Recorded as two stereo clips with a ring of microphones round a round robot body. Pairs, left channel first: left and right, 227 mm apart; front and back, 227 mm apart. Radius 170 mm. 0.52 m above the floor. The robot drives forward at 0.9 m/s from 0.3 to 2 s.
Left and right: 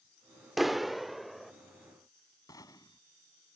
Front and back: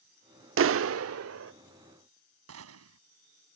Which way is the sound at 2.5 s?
170° left.